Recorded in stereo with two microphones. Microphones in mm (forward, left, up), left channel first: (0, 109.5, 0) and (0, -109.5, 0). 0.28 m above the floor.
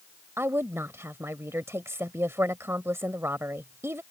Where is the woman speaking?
10° right (ahead or behind).